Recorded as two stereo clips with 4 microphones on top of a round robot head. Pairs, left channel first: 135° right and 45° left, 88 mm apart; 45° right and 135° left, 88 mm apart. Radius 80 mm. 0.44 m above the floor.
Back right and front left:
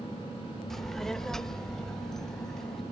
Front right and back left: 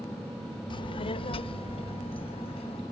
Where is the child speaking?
50° right; by 2.8 s 55° right.